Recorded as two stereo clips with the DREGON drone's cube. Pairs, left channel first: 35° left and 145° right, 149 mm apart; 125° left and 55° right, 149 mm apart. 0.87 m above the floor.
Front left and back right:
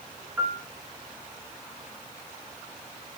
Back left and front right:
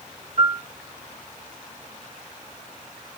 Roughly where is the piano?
Right.